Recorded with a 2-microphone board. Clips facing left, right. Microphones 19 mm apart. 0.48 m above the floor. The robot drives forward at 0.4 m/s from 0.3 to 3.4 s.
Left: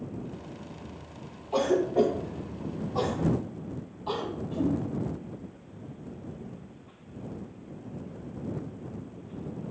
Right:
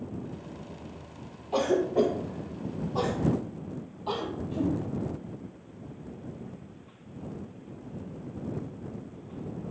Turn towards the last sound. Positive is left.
turn(degrees=-5)  # may be behind; listen again after turning